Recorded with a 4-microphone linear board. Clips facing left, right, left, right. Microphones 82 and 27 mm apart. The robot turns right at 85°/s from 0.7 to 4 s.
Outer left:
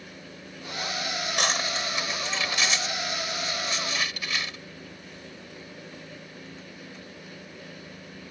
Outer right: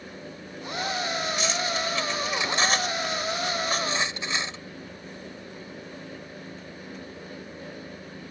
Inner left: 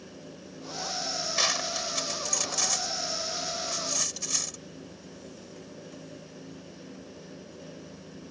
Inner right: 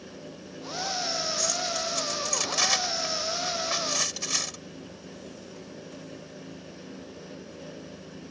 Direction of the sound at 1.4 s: 65° left (ahead or behind).